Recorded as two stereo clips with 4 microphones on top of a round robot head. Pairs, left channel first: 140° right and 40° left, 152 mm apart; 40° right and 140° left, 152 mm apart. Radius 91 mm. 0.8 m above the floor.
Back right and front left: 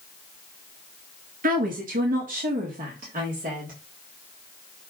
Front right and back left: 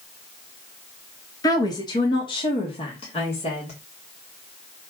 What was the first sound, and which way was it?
A woman speaking, 25° left.